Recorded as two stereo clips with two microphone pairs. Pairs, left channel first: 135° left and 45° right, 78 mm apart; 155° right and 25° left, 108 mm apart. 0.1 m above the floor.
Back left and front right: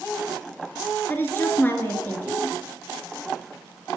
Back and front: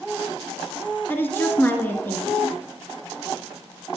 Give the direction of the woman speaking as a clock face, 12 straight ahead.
7 o'clock.